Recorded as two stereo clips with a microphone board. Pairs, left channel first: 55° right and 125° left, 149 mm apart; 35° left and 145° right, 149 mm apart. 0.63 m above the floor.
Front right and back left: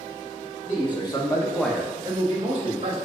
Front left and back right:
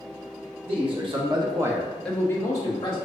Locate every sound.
0.7 s a man speaking: 100° right, 1.1 m; by 3.0 s 95° left, 1.1 m